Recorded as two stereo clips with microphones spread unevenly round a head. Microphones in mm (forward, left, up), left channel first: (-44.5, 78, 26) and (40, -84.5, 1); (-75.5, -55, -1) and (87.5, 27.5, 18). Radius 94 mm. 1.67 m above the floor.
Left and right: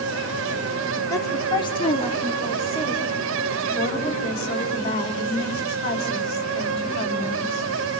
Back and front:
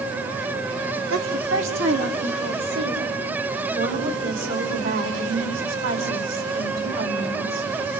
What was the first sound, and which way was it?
A woman speaking, 45° left.